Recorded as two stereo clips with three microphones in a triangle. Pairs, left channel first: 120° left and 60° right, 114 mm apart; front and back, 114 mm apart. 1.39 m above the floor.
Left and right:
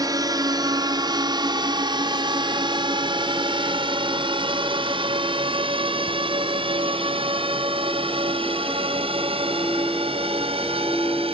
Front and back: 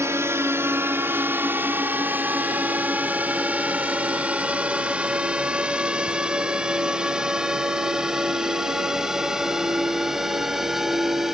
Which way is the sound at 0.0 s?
115° right.